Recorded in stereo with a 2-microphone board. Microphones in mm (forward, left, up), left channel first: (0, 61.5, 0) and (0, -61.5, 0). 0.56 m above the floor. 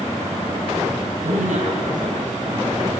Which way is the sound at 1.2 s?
70° right (ahead or behind).